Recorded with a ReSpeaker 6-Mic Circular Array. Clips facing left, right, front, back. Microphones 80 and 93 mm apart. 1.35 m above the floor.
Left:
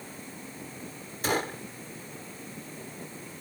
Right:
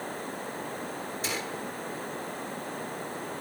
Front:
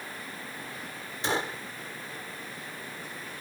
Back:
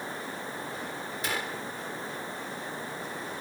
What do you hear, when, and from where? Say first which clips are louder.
0.0 s running water: right 8 dB, back 4 dB; 120° right
1.2 s a gunshot: left 8 dB, front 5 dB; 55° left